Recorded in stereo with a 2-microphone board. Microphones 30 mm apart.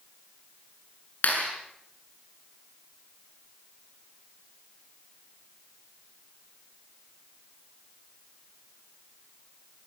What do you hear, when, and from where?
1.2 s a clap: 60° left (ahead or behind), 7 m